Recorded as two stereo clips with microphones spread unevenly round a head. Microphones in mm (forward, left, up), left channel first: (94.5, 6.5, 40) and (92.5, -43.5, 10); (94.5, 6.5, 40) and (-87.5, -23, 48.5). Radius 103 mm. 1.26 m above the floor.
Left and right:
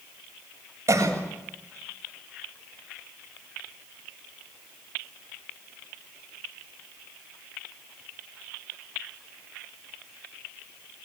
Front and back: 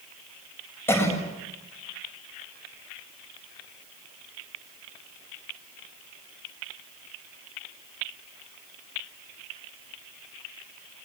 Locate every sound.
0.9 s a cough: 70° right, 7.5 m